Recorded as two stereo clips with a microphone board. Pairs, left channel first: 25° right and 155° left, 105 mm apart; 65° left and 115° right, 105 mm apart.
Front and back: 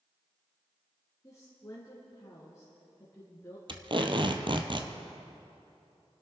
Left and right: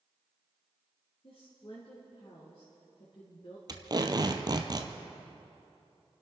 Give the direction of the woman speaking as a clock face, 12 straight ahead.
11 o'clock.